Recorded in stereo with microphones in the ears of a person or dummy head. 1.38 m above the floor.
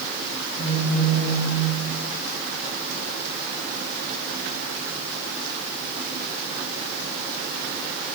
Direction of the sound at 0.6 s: 25° right (ahead or behind).